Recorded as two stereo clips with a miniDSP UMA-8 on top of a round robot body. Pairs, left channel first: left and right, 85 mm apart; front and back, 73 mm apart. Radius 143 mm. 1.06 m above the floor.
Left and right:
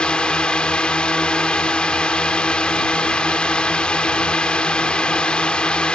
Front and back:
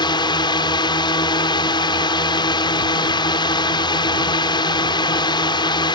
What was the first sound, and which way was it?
A drone, 10° left.